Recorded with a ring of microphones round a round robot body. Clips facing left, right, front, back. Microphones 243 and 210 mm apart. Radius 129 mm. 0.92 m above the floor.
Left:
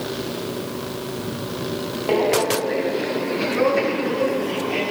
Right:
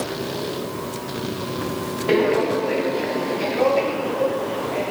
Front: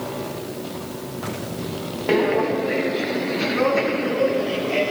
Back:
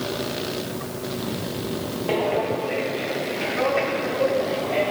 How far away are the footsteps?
About 1.2 m.